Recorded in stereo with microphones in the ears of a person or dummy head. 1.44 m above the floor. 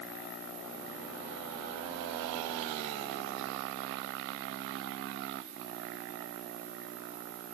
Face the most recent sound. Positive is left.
turn(degrees=-20)  # may be behind; listen again after turning